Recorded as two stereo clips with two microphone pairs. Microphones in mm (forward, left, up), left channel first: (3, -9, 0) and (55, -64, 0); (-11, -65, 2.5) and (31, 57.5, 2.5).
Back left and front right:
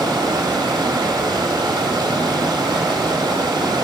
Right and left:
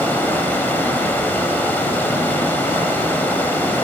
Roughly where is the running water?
Ahead right.